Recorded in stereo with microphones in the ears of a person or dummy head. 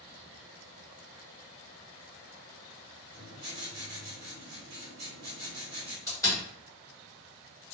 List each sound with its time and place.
3.1 s writing: 45° right (ahead or behind), 1.0 m
6.1 s a door slam: 15° left (ahead or behind), 1.2 m